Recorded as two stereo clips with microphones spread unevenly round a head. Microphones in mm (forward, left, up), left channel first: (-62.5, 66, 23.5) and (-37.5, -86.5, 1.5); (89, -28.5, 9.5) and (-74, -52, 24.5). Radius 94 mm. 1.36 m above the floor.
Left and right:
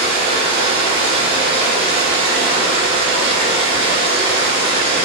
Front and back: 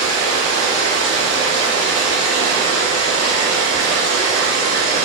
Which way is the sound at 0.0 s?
50° right.